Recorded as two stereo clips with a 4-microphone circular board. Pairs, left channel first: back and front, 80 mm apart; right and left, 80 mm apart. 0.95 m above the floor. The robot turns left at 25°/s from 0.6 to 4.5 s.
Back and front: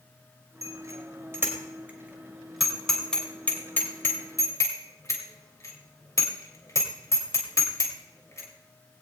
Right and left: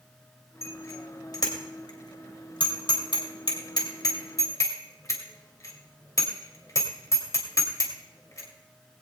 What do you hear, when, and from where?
0.6 s a bicycle bell: 35° right, 2.5 m; by 8.5 s 135° right, 2.5 m